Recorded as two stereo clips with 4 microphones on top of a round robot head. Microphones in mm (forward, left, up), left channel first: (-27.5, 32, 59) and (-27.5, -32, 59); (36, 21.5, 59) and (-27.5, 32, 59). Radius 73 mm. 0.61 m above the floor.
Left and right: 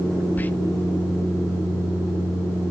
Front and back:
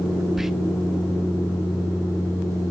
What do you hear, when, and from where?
0.4 s whispering: 90° left, 0.7 m